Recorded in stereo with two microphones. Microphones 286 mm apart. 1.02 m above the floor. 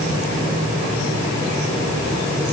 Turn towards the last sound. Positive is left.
No sound to turn to.